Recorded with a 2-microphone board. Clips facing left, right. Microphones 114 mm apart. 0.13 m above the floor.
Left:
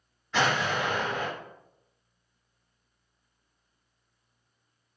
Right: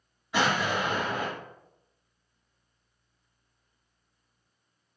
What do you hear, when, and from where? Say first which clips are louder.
0.3 s an explosion: even; 10° right (ahead or behind), 1.8 m